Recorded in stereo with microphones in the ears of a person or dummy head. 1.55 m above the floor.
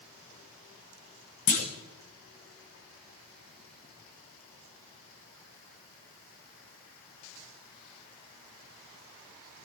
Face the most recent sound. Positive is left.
turn(degrees=35)  # may be behind; listen again after turning